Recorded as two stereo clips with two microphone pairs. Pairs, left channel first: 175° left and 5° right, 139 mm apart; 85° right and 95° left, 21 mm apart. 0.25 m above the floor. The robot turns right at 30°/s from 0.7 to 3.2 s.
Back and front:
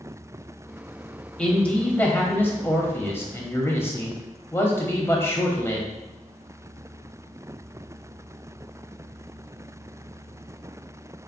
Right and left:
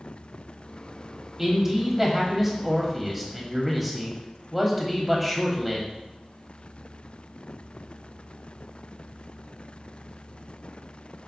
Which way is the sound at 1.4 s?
110° left.